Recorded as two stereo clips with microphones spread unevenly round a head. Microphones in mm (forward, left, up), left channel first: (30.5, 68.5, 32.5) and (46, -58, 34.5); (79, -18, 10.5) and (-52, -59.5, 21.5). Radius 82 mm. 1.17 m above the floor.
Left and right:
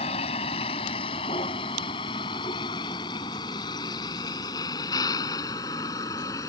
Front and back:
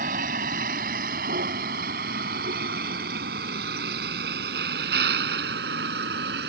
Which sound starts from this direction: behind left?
A vehicle, at 0.0 s.